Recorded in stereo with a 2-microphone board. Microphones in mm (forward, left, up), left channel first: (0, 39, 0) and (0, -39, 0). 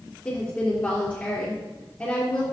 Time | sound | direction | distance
0.2 | a woman speaking | 25° left (ahead or behind) | 3.5 m